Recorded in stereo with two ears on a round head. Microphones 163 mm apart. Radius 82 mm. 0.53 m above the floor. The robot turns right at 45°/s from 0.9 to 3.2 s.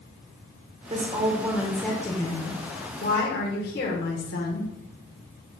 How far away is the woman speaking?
About 1.2 m.